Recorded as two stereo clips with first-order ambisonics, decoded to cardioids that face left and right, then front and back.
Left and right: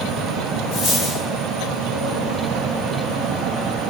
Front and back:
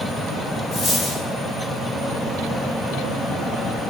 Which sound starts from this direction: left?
A dropped coin, at 0.7 s.